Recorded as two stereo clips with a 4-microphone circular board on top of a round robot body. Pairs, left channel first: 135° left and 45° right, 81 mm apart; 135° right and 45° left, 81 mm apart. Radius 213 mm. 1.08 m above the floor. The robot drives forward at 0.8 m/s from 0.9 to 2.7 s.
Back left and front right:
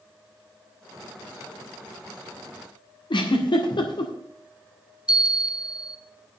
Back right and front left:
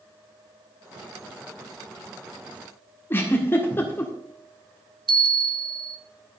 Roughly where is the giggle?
Behind.